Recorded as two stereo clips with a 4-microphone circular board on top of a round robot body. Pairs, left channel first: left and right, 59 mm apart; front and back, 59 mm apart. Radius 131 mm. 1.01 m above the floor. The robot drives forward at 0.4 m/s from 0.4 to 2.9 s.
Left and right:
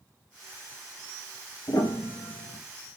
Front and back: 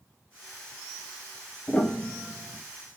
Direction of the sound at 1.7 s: 70° left.